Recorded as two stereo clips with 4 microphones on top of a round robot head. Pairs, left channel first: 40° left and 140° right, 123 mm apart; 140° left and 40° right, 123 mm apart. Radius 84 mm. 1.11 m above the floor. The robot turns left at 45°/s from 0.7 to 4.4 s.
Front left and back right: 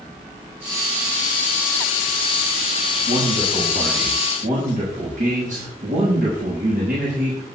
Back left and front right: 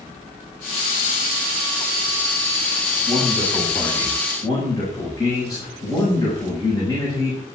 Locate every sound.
3.0 s a man speaking: 105° right, 6.5 m; by 7.4 s 165° right, 6.5 m